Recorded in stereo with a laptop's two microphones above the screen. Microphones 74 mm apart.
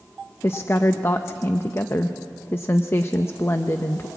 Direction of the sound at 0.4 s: 35° left (ahead or behind).